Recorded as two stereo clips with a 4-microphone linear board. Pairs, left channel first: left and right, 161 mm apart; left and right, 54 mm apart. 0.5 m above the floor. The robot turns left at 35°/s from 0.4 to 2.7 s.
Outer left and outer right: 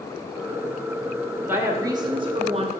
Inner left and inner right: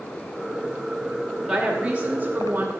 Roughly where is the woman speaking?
Ahead.